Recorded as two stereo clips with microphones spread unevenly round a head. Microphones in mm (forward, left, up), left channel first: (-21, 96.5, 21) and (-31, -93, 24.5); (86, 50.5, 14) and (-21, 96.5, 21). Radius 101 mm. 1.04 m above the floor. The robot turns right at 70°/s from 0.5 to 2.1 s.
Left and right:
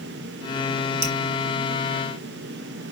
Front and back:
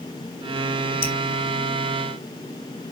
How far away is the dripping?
About 3 m.